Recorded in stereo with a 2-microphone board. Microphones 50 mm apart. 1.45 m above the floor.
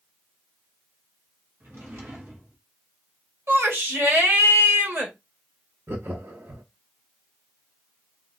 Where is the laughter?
45° right (ahead or behind), 0.7 m.